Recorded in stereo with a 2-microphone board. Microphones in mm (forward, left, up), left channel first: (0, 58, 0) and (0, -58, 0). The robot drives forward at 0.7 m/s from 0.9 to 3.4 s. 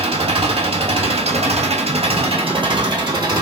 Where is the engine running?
60° right (ahead or behind), 1.1 m; by 3.4 s 35° right (ahead or behind), 1.6 m.